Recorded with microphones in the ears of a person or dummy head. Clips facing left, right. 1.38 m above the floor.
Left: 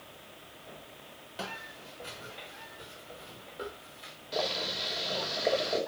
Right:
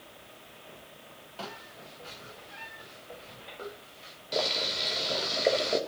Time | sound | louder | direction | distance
1.4 | footsteps | left 1 dB | 20° left (ahead or behind) | 8 m
4.3 | boiling | right 2 dB | 30° right (ahead or behind) | 4 m